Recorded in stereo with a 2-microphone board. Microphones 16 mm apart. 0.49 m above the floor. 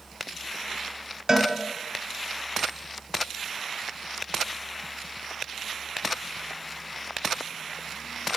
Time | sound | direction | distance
1.3 | a cowbell | 30° right (ahead or behind) | 0.7 m